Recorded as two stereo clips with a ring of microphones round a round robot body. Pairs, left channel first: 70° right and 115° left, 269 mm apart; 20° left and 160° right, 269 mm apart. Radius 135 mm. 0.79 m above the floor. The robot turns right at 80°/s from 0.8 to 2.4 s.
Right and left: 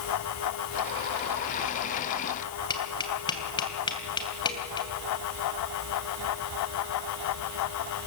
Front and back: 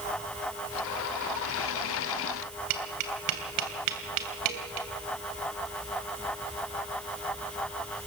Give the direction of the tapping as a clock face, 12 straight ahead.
5 o'clock.